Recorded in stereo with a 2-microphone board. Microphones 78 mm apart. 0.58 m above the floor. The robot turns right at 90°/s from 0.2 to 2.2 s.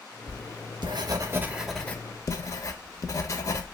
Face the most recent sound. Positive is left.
turn(degrees=45)  # may be behind; listen again after turning